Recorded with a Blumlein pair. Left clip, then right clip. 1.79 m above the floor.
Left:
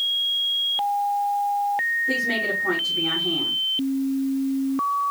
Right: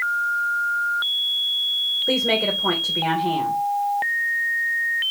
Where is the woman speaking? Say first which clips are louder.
Right 3 dB; 60° right, 2.5 m.